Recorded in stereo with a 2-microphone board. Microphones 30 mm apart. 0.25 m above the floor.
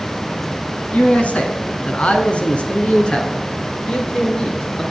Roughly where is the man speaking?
Left.